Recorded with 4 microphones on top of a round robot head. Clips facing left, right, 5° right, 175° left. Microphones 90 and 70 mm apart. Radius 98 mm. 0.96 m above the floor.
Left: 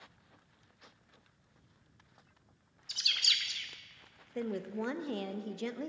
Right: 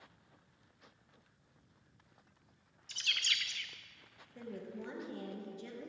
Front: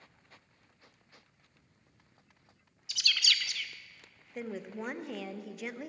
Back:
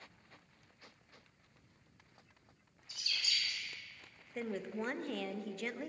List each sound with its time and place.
2.9 s a bird: 15° left, 0.6 m
4.3 s a woman speaking: 80° left, 0.9 m